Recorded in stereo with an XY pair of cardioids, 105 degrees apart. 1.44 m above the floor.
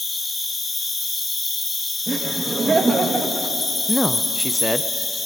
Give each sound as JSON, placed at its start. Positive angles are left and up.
{"t": 0.0, "sound": "an insect", "azimuth_deg": 25, "distance_m": 2.5}
{"t": 2.1, "sound": "laughter", "azimuth_deg": -25, "distance_m": 2.5}
{"t": 3.9, "sound": "a man speaking", "azimuth_deg": 10, "distance_m": 0.8}